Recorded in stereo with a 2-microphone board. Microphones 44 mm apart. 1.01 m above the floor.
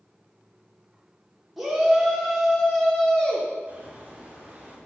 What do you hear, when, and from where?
1.6 s a shout: 10° right (ahead or behind), 3 m; by 3.5 s 20° left (ahead or behind), 3 m
3.7 s a bird: 30° right (ahead or behind), 3 m